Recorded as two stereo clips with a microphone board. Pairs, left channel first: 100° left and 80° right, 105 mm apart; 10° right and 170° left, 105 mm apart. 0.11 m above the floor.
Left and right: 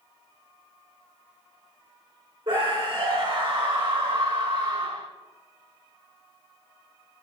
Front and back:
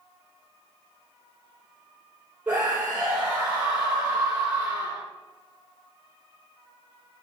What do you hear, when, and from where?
2.5 s a scream: 120° right, 4 m